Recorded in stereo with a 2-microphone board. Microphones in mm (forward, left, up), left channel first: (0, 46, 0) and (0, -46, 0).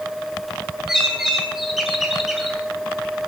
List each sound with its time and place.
0.9 s a bird: 5° right (ahead or behind), 3.5 m